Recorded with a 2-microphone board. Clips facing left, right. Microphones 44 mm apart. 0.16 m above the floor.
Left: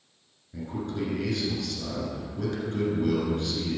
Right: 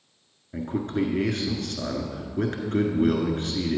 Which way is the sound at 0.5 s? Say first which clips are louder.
Right 5 dB; 45° right (ahead or behind).